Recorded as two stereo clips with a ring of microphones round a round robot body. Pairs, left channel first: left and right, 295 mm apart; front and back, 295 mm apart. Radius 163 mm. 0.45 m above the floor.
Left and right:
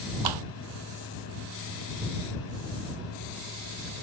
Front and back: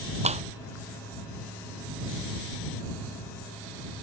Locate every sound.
0.2 s a clap: 110° right